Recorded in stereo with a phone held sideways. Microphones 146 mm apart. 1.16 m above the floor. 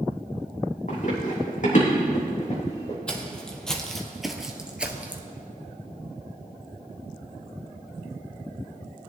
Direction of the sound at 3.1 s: 5° left (ahead or behind).